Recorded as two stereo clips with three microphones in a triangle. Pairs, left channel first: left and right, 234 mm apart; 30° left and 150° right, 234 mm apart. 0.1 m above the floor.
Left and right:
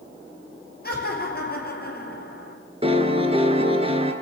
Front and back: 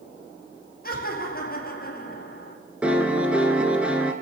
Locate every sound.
0.8 s laughter: 60° left, 2.5 m
2.8 s a piano: 70° right, 1.1 m